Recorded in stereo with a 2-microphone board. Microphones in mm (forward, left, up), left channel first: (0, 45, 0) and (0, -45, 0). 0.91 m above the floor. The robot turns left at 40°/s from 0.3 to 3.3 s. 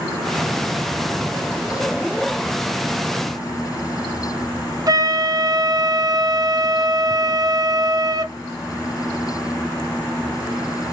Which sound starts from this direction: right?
A flute, at 4.9 s.